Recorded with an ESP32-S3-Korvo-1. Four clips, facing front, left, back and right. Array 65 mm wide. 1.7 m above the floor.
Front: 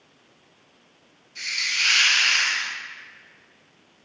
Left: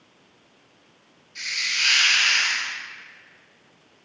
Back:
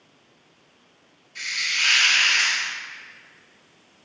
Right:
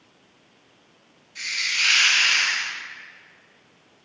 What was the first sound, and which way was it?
A hiss, 170° left.